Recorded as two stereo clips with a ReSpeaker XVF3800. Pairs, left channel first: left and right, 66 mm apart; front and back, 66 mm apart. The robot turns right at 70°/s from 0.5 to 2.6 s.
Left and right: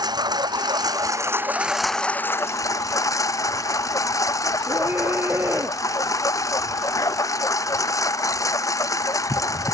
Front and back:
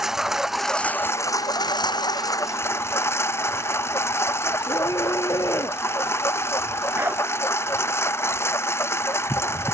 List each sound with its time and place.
0.0 s a lawn mower: 95° right; by 9.8 s 50° left
4.7 s a scream: 35° right
7.0 s a dog barking: 125° left